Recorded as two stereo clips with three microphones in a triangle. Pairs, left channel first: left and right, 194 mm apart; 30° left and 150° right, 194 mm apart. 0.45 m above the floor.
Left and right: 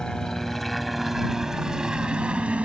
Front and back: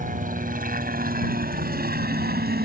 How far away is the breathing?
I don't hear breathing.